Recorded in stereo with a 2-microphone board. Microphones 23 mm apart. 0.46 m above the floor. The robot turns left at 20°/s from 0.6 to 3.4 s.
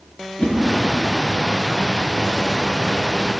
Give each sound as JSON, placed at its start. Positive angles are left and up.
{"t": 0.4, "sound": "a whoosh", "side_deg": 70, "distance_m": 1.5}